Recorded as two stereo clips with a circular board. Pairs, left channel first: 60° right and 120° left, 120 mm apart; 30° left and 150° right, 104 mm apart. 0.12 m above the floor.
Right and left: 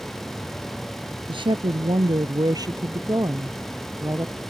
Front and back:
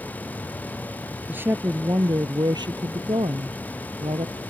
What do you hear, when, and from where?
1.3 s a woman speaking: 140° left; by 4.4 s 175° right